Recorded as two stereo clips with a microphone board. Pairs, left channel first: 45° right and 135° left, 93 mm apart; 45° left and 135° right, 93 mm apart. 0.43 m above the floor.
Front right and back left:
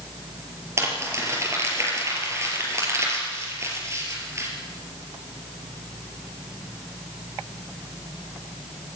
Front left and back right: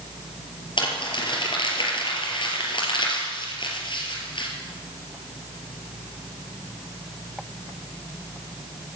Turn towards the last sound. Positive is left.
turn(degrees=75)